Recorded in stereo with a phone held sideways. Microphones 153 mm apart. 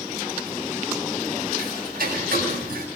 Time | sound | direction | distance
1.6 | ticking | 85° right | 9 m